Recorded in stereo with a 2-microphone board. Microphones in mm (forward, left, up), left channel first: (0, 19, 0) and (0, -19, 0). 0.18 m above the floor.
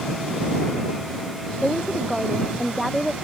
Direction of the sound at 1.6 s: 5° right (ahead or behind).